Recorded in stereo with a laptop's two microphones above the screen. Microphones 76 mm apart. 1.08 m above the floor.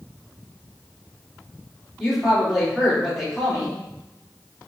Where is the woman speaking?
Centre (ahead or behind), 2.5 m.